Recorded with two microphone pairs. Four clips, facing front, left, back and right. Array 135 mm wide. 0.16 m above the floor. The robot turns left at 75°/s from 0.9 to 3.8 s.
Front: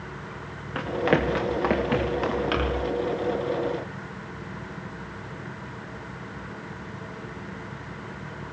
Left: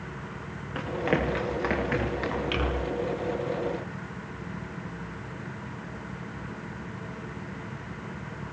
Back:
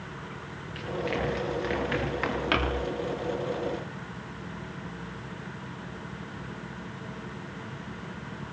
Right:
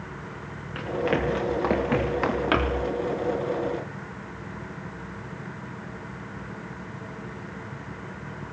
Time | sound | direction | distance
0.8 | running footsteps | 20° left | 8.5 m